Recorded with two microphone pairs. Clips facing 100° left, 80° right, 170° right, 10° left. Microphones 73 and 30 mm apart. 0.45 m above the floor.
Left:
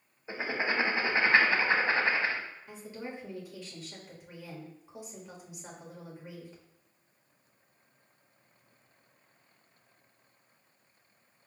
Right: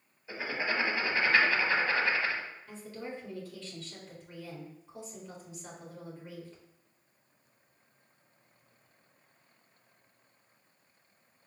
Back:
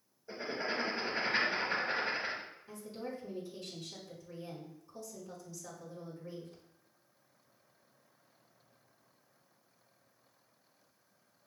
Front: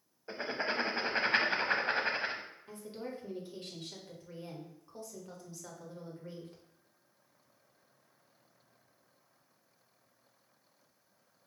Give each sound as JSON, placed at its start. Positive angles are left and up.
{"t": 0.3, "sound": "writing", "azimuth_deg": 45, "distance_m": 0.7}
{"t": 2.7, "sound": "a woman speaking", "azimuth_deg": 30, "distance_m": 1.4}